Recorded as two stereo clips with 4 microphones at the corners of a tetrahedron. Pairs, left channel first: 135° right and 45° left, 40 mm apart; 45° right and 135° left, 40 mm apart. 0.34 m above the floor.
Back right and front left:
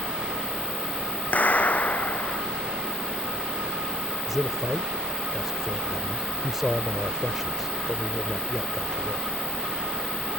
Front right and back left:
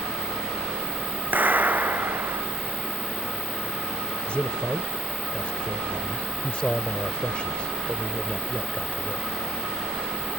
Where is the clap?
Straight behind.